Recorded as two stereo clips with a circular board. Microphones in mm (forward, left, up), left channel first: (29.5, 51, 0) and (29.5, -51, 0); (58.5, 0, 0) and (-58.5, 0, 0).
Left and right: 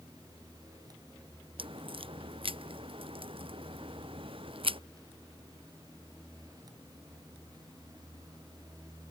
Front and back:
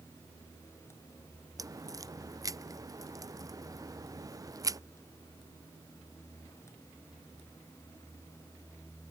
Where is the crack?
120° right.